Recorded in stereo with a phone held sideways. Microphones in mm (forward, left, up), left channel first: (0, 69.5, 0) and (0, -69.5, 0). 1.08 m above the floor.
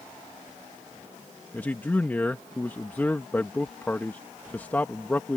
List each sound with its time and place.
1.5 s a man speaking: 15° left (ahead or behind)